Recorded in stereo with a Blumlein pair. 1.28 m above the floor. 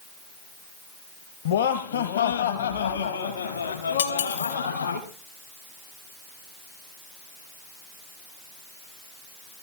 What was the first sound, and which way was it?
Laughter, 60° left.